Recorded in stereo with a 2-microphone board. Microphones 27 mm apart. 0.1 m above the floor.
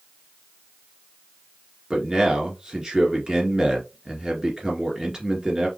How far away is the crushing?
I don't hear crushing.